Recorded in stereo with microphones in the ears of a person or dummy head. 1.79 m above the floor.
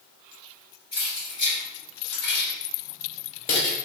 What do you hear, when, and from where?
0.9 s keys jangling: 40° left (ahead or behind), 1.7 m; by 3.8 s 35° left (ahead or behind), 1.1 m